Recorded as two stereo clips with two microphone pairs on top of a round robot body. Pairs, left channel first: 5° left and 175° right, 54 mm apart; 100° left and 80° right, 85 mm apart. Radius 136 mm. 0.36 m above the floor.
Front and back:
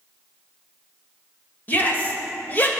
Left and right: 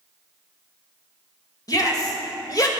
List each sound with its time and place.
1.7 s a shout: 55° left, 2.0 m